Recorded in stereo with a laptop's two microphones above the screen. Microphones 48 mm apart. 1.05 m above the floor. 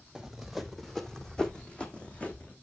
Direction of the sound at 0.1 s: 10° right (ahead or behind).